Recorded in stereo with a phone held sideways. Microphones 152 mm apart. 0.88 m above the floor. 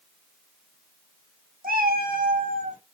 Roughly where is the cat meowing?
Right.